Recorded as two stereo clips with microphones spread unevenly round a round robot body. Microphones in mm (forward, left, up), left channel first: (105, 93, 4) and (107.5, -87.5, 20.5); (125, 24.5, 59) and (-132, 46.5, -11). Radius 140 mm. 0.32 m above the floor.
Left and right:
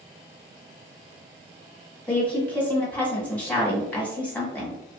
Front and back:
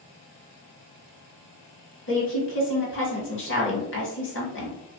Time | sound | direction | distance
2.1 | a woman speaking | 25° left | 1.2 m